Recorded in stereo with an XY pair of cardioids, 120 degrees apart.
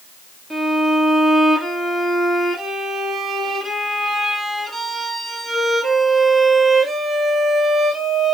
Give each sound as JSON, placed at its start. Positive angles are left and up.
{"t": 0.5, "sound": "a violin", "azimuth_deg": -20, "distance_m": 2.0}